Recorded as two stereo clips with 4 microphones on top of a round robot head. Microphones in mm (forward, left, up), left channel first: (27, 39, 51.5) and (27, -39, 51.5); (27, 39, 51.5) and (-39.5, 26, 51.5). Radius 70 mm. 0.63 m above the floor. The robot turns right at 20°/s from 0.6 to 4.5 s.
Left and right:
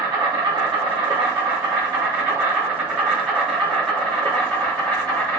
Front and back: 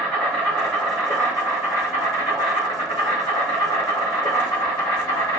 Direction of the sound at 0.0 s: 65° right.